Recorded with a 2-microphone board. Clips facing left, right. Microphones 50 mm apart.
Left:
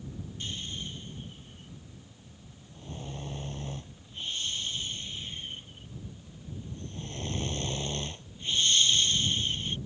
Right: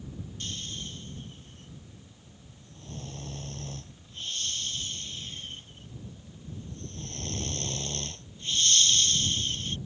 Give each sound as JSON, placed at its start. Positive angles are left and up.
{"t": 0.4, "sound": "snoring", "side_deg": 15}